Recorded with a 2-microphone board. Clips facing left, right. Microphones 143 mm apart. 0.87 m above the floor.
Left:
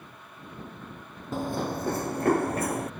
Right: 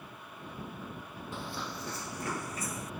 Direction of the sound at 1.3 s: 45° left (ahead or behind).